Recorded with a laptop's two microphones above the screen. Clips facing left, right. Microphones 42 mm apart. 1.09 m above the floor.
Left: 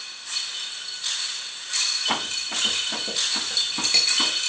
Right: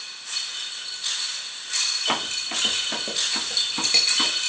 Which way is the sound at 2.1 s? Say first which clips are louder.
Right 2 dB; 50° right (ahead or behind).